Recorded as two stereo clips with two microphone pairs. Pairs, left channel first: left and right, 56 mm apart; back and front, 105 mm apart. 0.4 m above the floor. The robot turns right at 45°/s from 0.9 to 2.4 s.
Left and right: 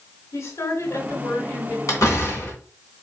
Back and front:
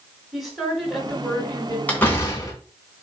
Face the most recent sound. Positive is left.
turn(degrees=130)